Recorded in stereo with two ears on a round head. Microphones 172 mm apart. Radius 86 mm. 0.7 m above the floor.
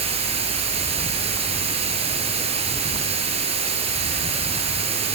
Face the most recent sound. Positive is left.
turn(degrees=-30)  # may be behind; listen again after turning